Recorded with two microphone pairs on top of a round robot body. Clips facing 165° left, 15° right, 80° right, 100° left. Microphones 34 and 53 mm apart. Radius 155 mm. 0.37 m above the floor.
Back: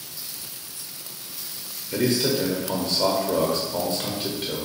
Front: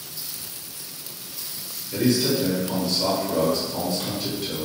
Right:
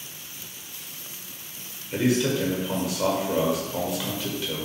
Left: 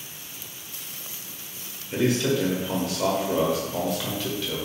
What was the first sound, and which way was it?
A man speaking, straight behind.